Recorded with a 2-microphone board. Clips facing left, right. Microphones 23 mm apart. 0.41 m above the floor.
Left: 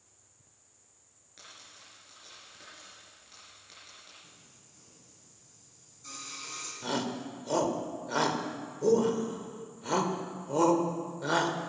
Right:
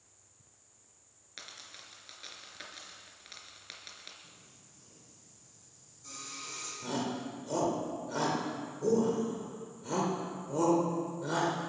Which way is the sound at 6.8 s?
35° left (ahead or behind).